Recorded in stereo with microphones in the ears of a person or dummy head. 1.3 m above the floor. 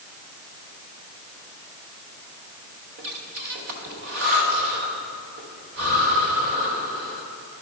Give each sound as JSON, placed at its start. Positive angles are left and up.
{"t": 3.0, "sound": "breathing", "side_deg": -55, "distance_m": 1.2}